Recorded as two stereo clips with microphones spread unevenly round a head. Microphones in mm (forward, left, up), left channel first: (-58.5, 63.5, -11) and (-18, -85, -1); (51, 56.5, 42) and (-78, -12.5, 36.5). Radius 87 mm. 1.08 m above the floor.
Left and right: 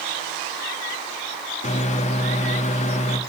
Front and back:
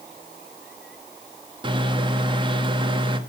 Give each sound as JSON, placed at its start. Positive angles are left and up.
{"t": 1.6, "sound": "a microwave", "azimuth_deg": 150, "distance_m": 1.4}